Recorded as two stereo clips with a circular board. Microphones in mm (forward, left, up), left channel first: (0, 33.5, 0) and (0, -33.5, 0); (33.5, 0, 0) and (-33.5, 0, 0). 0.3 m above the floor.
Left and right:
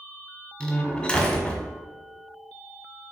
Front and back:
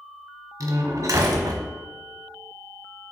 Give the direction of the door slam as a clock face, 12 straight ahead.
7 o'clock.